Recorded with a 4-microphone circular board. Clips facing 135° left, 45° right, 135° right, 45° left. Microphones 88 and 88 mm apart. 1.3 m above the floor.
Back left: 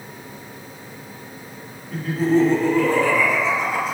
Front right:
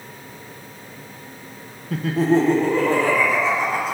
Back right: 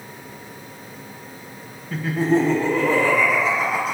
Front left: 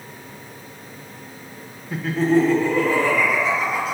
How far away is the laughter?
About 0.6 m.